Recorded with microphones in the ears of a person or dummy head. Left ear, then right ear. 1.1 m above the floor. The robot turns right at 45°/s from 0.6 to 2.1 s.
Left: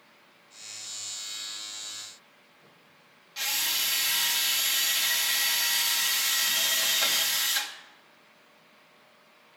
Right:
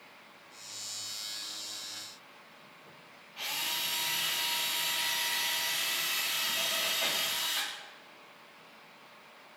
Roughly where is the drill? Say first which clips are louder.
Left 5 dB; left.